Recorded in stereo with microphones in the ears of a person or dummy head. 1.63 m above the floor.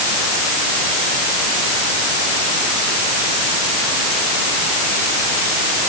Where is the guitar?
No guitar in this recording.